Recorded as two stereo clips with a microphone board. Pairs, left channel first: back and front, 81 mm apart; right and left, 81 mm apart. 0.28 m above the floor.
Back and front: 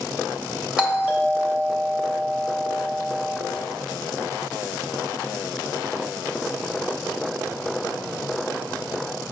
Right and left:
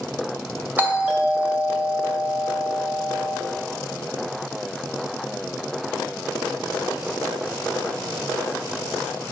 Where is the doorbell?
65° left, 2 m.